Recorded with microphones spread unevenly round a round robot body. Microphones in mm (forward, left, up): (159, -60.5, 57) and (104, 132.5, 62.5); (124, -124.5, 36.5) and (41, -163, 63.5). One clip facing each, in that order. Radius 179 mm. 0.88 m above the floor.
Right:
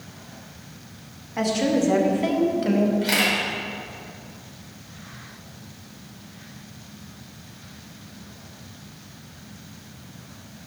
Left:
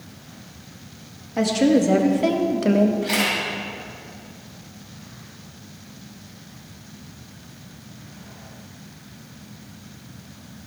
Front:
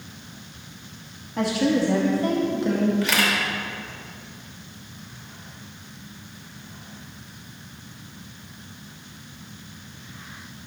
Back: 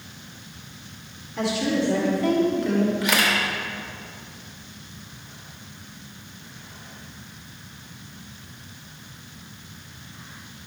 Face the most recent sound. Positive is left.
turn(degrees=-80)